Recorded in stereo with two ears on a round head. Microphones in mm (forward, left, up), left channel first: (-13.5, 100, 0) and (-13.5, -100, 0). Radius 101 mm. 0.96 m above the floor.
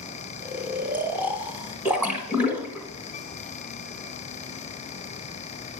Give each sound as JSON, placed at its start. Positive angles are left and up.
{"t": 0.4, "sound": "snoring", "side_deg": -10, "distance_m": 0.8}
{"t": 1.9, "sound": "a splash", "side_deg": -10, "distance_m": 1.4}